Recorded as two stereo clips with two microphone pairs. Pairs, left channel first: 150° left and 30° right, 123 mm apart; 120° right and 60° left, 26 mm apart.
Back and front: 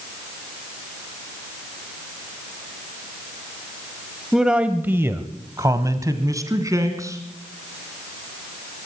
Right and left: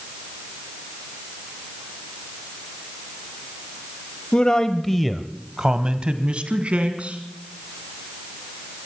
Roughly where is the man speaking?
Behind right.